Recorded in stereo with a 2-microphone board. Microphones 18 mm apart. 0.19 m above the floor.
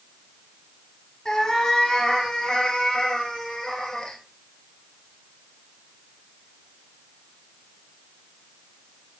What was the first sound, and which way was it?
A cat meowing, 50° left (ahead or behind).